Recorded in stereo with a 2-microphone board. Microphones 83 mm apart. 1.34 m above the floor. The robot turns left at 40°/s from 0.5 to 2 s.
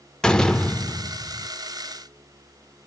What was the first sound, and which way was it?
A door slam, 170° left.